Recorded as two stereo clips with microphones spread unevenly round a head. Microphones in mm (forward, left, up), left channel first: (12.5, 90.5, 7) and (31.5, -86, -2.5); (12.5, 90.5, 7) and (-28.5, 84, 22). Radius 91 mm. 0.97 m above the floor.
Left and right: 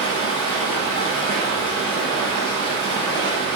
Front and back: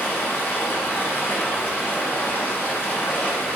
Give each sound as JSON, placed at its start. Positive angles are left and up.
{"t": 0.0, "sound": "running water", "azimuth_deg": 55, "distance_m": 1.1}